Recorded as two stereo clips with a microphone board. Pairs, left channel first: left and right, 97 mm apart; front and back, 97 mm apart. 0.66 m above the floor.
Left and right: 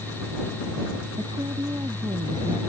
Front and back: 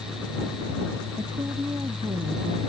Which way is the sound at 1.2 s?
130° right.